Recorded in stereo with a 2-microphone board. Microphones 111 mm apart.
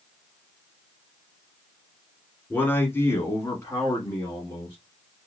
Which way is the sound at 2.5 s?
15° left (ahead or behind).